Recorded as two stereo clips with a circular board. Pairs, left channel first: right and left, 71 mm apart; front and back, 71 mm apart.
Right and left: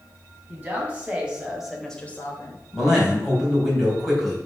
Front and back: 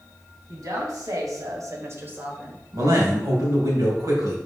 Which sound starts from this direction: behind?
A man speaking, at 2.7 s.